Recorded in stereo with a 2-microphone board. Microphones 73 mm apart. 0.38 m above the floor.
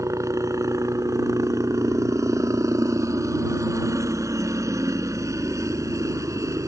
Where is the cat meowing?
I don't hear a cat meowing.